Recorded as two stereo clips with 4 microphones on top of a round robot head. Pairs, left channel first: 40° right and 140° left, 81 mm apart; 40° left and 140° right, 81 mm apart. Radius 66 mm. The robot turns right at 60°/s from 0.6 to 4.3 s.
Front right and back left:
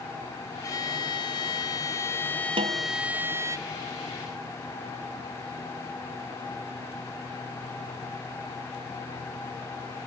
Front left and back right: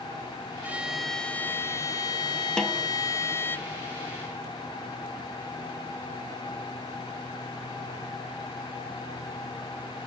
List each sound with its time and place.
0.6 s a violin: 75° right; by 3.6 s 100° left
2.6 s a snare drum: 120° left; by 2.9 s 135° left